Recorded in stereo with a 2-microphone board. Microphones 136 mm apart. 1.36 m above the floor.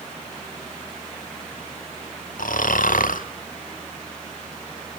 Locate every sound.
2.4 s snoring: 80° left, 0.9 m